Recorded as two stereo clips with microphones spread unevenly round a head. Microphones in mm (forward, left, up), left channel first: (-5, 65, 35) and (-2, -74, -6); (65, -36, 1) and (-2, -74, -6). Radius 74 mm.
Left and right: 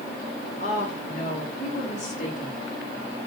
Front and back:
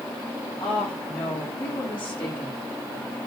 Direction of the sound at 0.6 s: 50° left.